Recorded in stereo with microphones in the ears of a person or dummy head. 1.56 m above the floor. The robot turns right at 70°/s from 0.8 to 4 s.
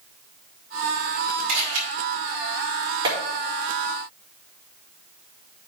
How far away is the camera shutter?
About 4.5 m.